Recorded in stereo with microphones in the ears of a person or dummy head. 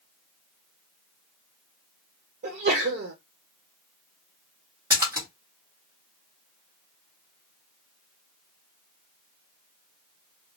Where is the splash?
10° right (ahead or behind), 0.6 m.